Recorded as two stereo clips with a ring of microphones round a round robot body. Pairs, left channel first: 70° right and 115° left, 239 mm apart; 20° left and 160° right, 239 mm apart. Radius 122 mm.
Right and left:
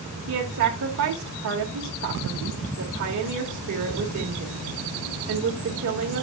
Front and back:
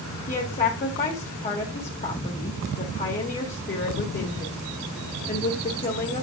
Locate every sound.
0.3 s a woman speaking: 80° left, 1.8 m